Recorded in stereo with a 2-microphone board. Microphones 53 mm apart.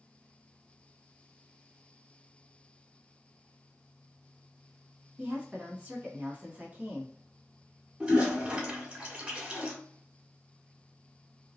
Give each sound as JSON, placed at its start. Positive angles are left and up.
{"t": 5.2, "sound": "a woman speaking", "side_deg": -25, "distance_m": 1.4}
{"t": 8.0, "sound": "a toilet flushing", "side_deg": -25, "distance_m": 1.5}